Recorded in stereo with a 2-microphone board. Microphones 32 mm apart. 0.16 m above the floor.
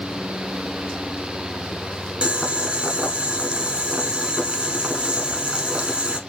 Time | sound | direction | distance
2.2 | boiling | 35° right (ahead or behind) | 0.7 m